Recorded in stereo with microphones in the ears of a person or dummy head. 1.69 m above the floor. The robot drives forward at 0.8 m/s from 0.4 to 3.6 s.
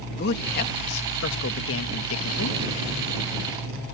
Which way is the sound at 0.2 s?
55° left (ahead or behind).